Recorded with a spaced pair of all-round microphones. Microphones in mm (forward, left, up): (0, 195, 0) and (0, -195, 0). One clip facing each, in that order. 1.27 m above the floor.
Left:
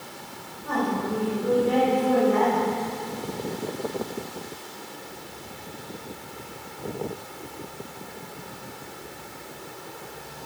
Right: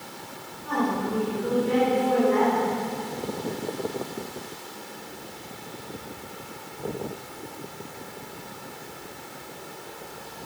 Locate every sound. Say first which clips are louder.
0.7 s a woman speaking: even; 70° left (ahead or behind), 6 m; by 2.8 s 50° left (ahead or behind), 6.5 m